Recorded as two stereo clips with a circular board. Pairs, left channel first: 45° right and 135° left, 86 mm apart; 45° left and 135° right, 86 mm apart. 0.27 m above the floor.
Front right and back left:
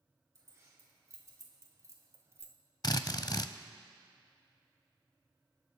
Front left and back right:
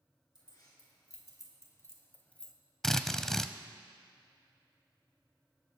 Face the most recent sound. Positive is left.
turn(degrees=-40)